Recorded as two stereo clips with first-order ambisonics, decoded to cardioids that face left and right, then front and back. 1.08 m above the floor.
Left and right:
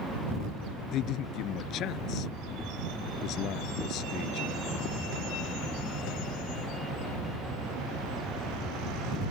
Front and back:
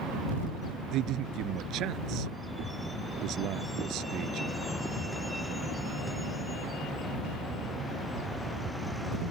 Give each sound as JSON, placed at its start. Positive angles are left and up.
{"t": 0.9, "sound": "a man speaking", "azimuth_deg": 135}